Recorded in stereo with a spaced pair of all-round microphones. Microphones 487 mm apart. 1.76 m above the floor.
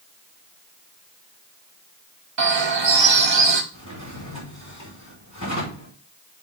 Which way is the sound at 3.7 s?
40° left (ahead or behind).